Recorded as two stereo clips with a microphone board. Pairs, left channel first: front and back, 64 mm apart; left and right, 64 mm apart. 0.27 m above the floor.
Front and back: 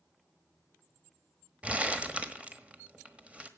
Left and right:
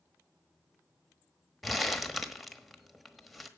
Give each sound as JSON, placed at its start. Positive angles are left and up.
{"t": 1.6, "sound": "crumpling", "azimuth_deg": 175, "distance_m": 1.2}